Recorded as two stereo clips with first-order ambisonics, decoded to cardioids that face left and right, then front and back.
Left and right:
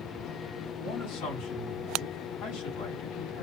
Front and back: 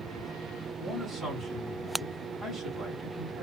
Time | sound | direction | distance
0.8 | a man speaking | 85° left | 3 m